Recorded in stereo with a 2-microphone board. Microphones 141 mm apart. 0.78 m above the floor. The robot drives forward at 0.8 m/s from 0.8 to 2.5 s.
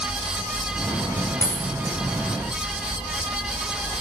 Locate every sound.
1.4 s a dropped coin: 25° right (ahead or behind), 4 m